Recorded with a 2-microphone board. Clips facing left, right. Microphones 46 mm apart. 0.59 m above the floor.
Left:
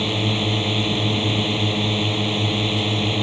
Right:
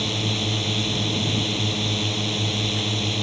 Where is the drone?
20° left (ahead or behind).